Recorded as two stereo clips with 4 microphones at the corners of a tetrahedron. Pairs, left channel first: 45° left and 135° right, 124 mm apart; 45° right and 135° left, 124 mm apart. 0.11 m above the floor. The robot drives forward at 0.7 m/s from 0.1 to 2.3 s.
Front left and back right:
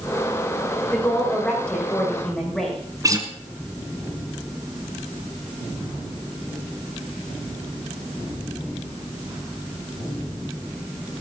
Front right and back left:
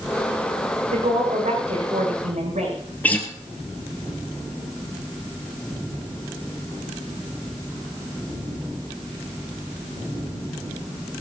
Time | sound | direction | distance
0.9 | a woman speaking | 125° left | 6.5 m
3.0 | a guitar | 110° right | 1.8 m